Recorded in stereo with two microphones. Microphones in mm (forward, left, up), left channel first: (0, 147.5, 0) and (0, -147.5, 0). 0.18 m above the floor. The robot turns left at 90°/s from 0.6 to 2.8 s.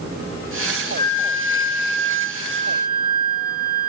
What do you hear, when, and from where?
1.0 s a flute: 35° right, 0.6 m; by 3.9 s 160° left, 0.6 m